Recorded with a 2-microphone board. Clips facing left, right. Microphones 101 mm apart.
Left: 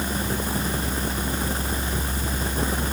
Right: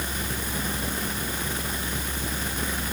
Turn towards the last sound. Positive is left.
No sound to turn to.